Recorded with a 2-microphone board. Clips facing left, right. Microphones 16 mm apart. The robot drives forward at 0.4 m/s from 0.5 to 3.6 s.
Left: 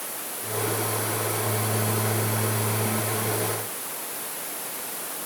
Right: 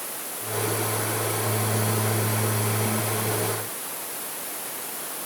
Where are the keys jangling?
No keys jangling in this recording.